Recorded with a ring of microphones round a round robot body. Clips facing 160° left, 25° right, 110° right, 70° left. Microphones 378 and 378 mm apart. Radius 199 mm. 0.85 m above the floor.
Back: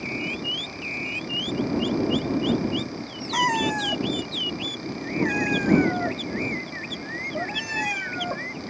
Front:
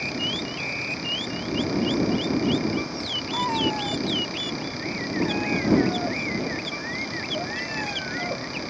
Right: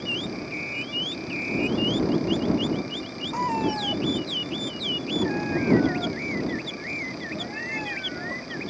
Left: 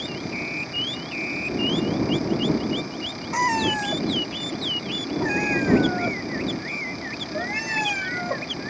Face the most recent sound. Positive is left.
turn(degrees=90)